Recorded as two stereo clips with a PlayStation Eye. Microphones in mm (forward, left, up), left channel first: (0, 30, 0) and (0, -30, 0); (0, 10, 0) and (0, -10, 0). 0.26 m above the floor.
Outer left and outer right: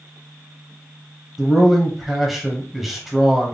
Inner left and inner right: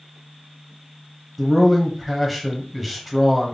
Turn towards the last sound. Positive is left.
turn(degrees=0)  # may be behind; listen again after turning